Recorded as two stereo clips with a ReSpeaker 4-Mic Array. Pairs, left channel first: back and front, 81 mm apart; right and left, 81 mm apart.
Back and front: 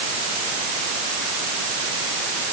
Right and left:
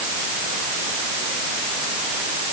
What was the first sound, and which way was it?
Only background noise.